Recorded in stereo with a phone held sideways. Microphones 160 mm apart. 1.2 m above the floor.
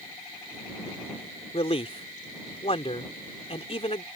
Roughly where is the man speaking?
Left.